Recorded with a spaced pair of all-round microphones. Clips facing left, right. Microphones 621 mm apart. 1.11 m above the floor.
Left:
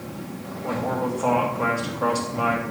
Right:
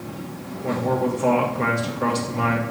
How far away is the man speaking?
About 1.4 m.